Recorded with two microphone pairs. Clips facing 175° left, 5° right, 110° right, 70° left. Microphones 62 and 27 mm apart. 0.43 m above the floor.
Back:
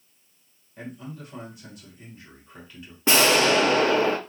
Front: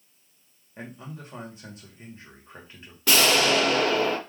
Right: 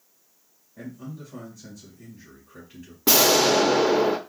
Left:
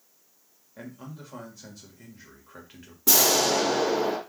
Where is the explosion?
140° right, 0.5 m.